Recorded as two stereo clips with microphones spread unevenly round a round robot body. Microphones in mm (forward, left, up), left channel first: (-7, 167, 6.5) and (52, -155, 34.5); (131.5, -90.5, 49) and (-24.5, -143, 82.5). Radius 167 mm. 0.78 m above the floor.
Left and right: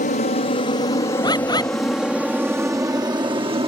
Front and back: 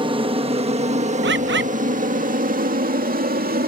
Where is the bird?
Straight behind.